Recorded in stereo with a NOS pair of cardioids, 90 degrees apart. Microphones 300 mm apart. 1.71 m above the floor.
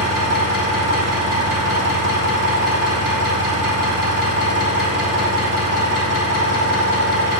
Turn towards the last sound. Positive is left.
turn(degrees=-50)